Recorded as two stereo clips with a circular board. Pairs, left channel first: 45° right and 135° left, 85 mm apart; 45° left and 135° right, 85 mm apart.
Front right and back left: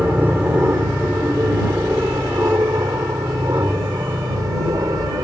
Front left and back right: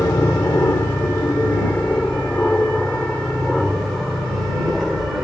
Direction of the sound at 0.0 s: 80° left.